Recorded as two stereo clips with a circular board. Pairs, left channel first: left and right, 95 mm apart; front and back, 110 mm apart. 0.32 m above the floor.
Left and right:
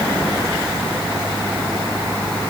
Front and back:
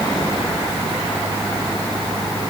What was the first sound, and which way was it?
Only background noise.